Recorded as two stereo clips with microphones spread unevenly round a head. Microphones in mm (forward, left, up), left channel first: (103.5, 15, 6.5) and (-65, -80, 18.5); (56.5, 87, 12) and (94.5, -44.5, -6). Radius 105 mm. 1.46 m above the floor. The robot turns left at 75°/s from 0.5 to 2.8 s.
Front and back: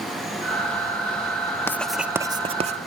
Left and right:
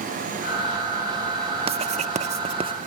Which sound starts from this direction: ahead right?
Writing, at 1.7 s.